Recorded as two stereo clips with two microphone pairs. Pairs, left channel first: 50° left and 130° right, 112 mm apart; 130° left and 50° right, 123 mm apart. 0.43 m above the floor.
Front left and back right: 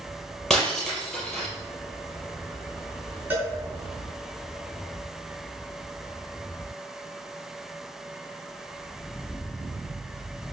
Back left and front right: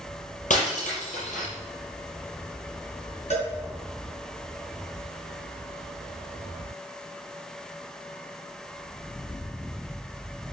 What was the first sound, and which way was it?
Breaking glass, 135° left.